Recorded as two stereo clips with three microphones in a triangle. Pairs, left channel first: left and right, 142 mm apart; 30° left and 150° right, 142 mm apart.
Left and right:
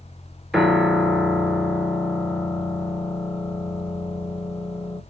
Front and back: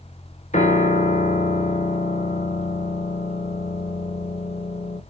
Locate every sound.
0.5 s a piano: 5° right, 0.9 m